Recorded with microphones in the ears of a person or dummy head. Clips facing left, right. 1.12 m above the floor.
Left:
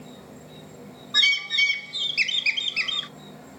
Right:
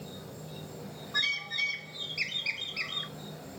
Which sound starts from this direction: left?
A bird, at 1.1 s.